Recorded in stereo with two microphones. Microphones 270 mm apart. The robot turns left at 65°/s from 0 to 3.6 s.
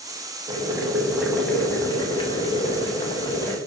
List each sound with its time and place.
0.5 s boiling: 15° right (ahead or behind), 0.8 m; by 3.6 s 10° left (ahead or behind), 0.8 m